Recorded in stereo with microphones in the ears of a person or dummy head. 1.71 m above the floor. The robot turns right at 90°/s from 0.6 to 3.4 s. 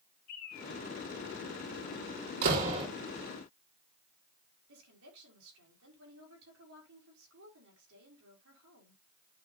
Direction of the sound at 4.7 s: 85° right.